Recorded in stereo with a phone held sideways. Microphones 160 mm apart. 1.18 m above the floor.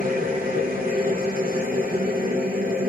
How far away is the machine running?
About 0.7 m.